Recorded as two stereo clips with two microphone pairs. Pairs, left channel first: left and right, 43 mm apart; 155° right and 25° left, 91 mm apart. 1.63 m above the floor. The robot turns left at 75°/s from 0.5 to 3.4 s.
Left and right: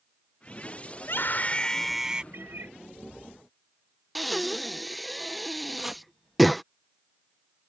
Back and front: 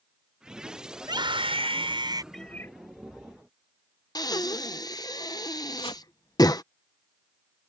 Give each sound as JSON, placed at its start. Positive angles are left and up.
{"t": 1.0, "sound": "a scream", "azimuth_deg": 70}
{"t": 2.3, "sound": "a cat meowing", "azimuth_deg": -70}
{"t": 4.2, "sound": "breathing", "azimuth_deg": -175}
{"t": 5.8, "sound": "chopping", "azimuth_deg": -175}